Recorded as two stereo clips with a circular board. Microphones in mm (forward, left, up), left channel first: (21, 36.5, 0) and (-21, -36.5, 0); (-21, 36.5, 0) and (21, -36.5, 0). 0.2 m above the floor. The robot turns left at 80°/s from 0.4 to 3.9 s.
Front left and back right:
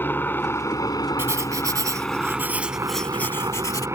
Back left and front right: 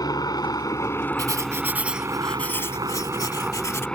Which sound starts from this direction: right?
Writing, at 1.2 s.